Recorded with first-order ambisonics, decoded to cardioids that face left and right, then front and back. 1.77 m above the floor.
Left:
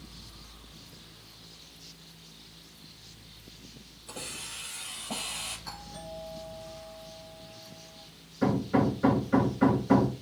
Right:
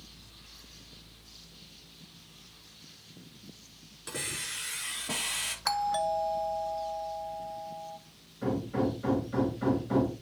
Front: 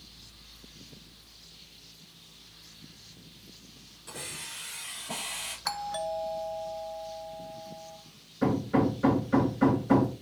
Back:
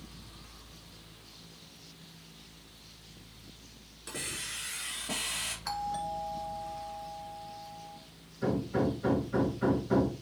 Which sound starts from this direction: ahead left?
Hammering, at 8.4 s.